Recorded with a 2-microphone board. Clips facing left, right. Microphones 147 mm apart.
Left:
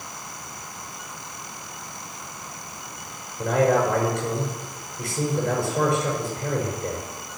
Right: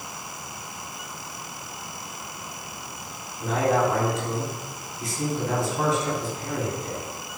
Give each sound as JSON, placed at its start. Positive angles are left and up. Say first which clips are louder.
{"t": 3.4, "sound": "a man speaking", "louder": "left 3 dB", "side_deg": 70, "distance_m": 6.0}